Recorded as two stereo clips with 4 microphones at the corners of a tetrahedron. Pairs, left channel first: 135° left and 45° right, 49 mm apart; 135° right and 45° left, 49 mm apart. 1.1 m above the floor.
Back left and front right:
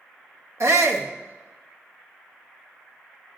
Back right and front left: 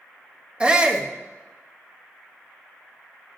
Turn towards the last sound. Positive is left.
turn(degrees=-25)